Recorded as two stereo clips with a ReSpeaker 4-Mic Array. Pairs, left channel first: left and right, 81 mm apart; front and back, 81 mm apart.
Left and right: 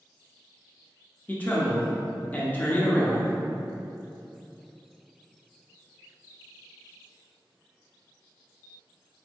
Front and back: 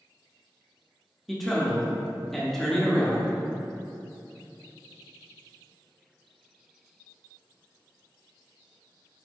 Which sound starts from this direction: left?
A man speaking, at 1.3 s.